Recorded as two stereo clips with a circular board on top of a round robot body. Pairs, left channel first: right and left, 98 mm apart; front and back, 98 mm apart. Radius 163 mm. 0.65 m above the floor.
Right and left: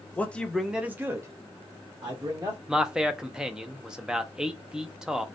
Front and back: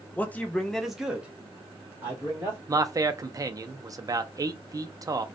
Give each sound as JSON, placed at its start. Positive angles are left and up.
{"t": 0.2, "sound": "a man speaking", "azimuth_deg": -45, "distance_m": 0.8}
{"t": 2.7, "sound": "a man speaking", "azimuth_deg": 170, "distance_m": 0.5}